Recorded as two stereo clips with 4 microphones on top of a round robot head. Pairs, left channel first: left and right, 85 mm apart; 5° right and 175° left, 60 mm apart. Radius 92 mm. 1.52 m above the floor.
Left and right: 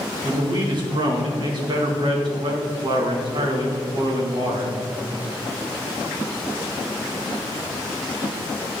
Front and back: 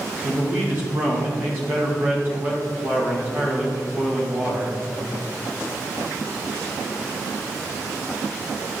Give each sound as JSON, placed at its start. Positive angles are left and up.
{"t": 0.2, "sound": "a man speaking", "azimuth_deg": -120, "distance_m": 2.0}